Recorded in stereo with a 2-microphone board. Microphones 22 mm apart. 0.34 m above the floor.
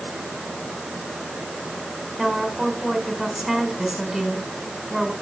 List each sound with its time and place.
2.2 s a woman speaking: 10° right (ahead or behind), 3 m